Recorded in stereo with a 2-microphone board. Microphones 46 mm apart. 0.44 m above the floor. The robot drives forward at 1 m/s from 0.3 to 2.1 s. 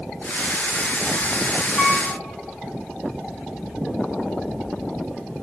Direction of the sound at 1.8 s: 30° left (ahead or behind).